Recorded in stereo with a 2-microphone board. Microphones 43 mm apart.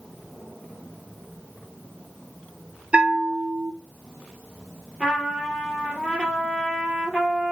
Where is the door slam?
I don't hear a door slam.